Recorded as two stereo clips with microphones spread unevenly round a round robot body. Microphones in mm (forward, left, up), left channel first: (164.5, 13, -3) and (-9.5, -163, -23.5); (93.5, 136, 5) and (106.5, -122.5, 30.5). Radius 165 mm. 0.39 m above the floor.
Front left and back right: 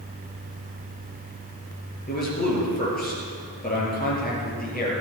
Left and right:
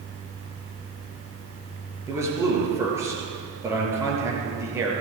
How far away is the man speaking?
About 6 m.